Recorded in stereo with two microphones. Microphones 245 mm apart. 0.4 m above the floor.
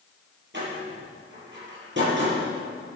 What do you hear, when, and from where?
0.5 s a door slam: 50° right (ahead or behind), 6.5 m